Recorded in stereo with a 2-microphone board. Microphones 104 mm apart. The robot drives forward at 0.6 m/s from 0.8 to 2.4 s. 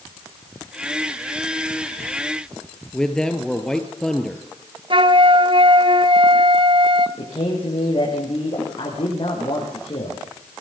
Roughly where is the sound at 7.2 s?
Left.